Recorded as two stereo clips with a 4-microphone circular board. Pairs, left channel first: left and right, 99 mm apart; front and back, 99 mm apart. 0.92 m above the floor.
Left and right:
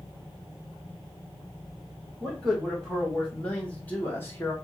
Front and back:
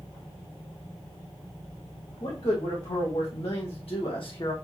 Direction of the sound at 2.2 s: Straight ahead.